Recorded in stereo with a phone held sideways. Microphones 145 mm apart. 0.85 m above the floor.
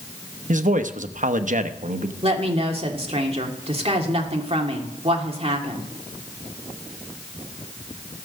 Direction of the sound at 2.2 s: 40° right (ahead or behind).